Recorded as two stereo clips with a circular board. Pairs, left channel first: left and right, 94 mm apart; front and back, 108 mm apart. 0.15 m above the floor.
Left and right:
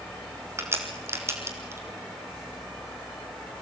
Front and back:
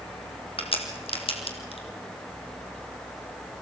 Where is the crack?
30° right, 2.5 m.